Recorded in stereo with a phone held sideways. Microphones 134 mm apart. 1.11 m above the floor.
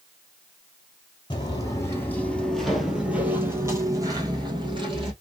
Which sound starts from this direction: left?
Footsteps, at 1.3 s.